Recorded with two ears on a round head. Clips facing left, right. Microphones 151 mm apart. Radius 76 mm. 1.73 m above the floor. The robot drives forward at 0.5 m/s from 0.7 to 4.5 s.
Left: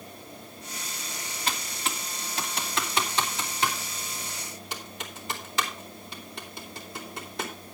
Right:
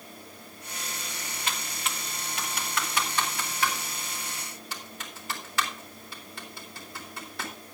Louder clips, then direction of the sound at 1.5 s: Left 3 dB; 35° left (ahead or behind).